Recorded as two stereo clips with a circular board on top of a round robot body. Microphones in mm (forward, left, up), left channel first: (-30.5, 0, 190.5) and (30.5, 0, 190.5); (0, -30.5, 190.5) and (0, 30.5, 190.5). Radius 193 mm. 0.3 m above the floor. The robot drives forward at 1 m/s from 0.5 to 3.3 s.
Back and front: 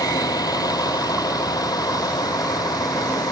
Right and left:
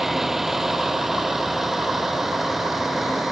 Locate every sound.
0.0 s a vehicle: 175° left